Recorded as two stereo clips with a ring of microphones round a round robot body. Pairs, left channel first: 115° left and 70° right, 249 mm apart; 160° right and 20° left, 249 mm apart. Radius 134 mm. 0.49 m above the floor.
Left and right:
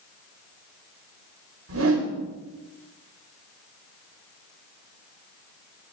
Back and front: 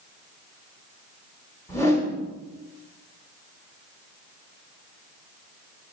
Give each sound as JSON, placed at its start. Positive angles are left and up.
{"t": 1.7, "sound": "a whoosh", "azimuth_deg": -80, "distance_m": 1.4}